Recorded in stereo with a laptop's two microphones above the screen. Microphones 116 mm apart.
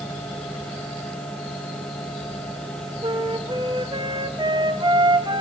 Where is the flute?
45° right (ahead or behind), 1.0 m.